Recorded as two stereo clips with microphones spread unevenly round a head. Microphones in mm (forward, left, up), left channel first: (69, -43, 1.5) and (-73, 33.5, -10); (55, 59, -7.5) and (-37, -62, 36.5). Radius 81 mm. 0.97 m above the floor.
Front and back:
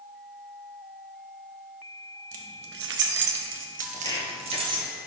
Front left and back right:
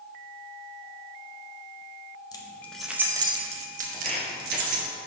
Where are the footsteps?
60° right, 1.0 m.